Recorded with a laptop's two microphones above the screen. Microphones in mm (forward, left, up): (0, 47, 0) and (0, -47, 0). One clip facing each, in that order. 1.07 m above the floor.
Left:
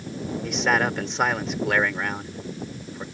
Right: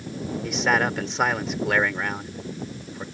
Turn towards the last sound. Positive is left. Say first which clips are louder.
# even
turn(degrees=0)  # may be behind; listen again after turning